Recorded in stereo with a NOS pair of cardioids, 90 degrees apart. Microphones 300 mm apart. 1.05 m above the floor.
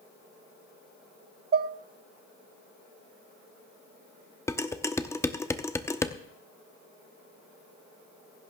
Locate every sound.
1.5 s dishes clattering: 35° right, 0.8 m
4.5 s dishes clattering: 10° left, 1.0 m